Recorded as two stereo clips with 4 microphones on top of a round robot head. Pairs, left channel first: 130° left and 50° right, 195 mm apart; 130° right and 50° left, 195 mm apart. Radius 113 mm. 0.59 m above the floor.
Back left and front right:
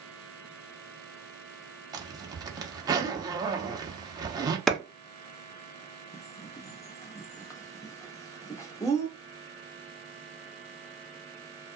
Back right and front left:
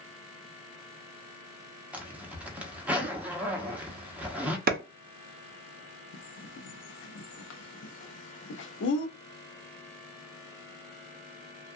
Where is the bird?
155° right, 0.5 m.